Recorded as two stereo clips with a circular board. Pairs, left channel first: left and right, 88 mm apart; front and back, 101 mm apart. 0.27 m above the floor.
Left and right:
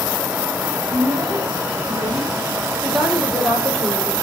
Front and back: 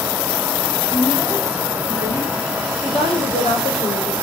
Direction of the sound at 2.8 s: Straight ahead.